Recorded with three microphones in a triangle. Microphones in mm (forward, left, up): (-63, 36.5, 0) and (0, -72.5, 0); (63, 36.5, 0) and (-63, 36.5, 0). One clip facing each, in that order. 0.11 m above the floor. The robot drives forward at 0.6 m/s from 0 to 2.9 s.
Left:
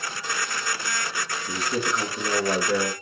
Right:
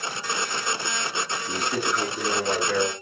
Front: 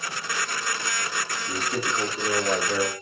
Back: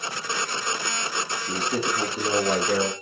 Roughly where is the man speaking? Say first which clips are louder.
Left 1 dB, back 2 dB; behind right.